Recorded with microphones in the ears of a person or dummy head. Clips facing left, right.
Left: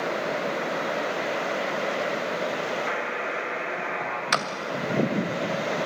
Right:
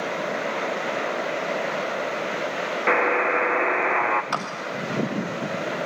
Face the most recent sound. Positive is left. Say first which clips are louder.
# left 1 dB
turn(degrees=25)  # may be behind; listen again after turning